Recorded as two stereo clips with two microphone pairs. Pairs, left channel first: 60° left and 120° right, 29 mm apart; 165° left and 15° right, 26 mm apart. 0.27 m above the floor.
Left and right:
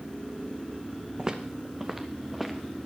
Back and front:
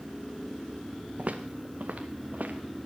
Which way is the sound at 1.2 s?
55° right.